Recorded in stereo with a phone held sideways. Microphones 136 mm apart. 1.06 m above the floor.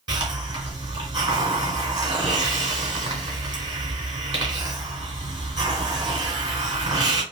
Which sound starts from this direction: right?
A hiss, at 0.1 s.